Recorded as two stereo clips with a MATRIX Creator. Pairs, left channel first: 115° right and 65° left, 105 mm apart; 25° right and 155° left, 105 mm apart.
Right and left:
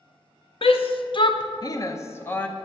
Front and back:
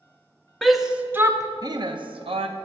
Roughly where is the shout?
Right.